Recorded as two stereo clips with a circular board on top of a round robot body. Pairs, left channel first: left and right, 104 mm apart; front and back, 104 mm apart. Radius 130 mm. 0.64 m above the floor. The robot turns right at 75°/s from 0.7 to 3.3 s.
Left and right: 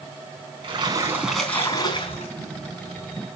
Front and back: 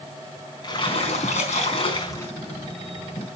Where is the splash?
45° right, 4 m; by 2.3 s 75° left, 4 m.